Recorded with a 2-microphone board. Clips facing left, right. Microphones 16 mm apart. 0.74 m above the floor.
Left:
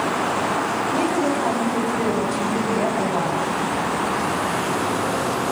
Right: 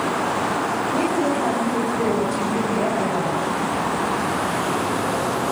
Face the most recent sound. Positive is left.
turn(degrees=10)  # may be behind; listen again after turning